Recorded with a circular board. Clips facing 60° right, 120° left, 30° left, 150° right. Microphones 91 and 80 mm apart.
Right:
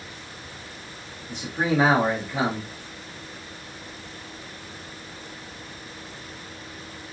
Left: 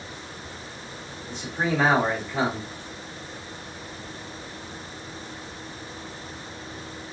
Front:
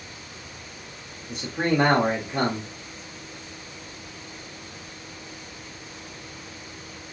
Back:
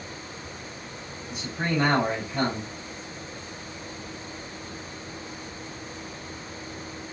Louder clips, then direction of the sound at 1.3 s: Right 2 dB, front 4 dB; 15° left.